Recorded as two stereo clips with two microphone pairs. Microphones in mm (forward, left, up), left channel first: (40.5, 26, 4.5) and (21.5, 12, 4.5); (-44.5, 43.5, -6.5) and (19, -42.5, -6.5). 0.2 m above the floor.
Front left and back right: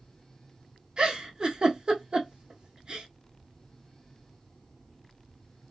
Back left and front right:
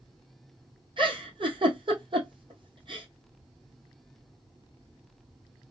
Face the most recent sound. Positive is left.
turn(degrees=-90)